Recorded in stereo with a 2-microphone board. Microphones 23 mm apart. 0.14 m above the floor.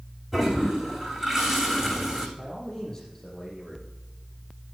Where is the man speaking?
20° left (ahead or behind), 7 m.